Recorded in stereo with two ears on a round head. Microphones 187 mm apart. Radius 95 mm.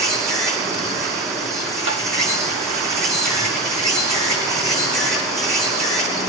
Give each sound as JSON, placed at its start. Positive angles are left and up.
{"t": 0.0, "sound": "an insect", "side_deg": -35, "distance_m": 7.5}
{"t": 1.9, "sound": "tapping", "side_deg": -65, "distance_m": 2.0}